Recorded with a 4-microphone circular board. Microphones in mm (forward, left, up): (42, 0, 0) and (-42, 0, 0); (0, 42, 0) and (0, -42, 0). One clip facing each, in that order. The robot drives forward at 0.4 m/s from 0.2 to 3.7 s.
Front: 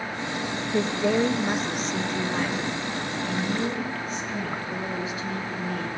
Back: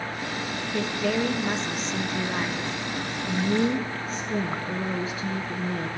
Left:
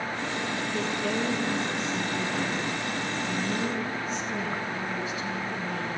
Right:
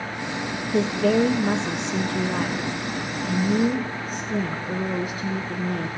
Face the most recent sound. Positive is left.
turn(degrees=-130)